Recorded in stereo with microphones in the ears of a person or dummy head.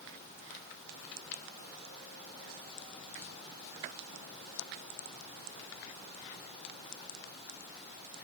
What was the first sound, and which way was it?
Only background noise.